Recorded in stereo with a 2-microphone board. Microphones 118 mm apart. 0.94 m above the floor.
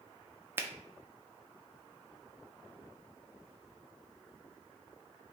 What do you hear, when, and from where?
0.6 s a finger snap: 20° right (ahead or behind), 0.5 m